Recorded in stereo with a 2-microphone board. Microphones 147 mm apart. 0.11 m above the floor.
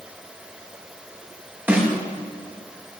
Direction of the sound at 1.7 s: 15° right (ahead or behind).